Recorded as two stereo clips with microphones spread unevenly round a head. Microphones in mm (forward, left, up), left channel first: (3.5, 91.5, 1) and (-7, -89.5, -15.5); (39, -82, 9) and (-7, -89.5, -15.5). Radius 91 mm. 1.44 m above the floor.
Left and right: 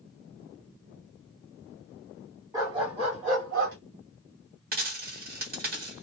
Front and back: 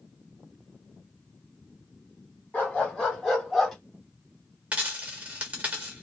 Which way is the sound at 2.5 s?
20° right.